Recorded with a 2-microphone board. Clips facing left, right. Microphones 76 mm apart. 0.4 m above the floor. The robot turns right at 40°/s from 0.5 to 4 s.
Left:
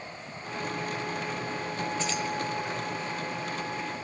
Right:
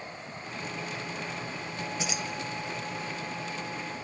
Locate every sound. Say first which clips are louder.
2.0 s keys jangling: left 3 dB; 10° right (ahead or behind), 1.0 m; by 2.2 s 15° right (ahead or behind), 1.0 m